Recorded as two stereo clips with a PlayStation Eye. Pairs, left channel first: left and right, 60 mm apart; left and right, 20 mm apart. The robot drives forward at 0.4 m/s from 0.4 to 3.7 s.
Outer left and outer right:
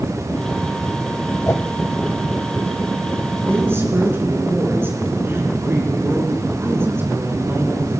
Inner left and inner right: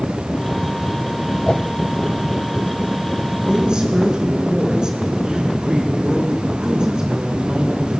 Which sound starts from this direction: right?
A woman speaking, at 3.4 s.